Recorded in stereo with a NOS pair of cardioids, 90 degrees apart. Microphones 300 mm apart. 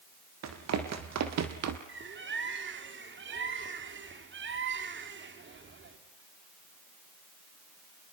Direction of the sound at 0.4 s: 65° right.